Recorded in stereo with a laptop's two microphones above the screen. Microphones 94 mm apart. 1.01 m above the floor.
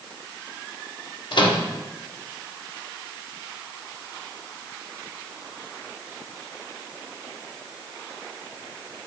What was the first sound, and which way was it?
A microwave, 60° left (ahead or behind).